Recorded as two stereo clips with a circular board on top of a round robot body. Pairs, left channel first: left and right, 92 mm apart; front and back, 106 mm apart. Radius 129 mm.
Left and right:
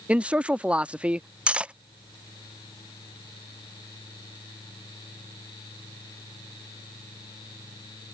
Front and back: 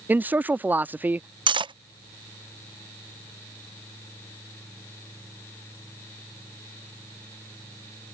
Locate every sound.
0.1 s a man speaking: 145° right
1.5 s cutlery clinking: 165° right